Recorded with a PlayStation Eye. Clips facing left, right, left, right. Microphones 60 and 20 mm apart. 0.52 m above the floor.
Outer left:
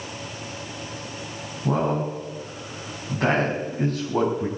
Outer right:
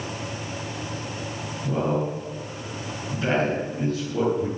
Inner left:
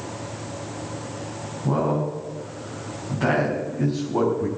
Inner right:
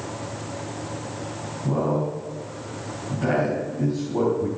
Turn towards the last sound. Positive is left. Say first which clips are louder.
# outer left 1 dB, inner left 1 dB
turn(degrees=55)  # may be behind; listen again after turning